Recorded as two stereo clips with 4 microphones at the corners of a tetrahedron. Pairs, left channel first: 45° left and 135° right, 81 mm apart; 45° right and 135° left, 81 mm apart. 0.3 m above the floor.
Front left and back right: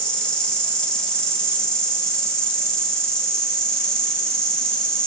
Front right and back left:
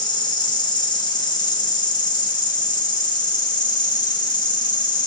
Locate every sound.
0.0 s an insect: 35° right, 2.5 m